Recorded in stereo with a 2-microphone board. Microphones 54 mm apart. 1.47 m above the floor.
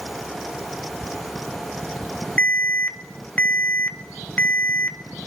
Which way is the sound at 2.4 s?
30° left (ahead or behind).